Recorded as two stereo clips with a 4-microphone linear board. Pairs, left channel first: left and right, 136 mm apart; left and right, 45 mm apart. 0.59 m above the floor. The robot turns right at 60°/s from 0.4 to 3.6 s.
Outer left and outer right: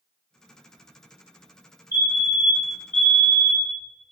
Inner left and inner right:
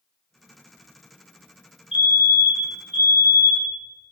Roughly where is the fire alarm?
Behind right.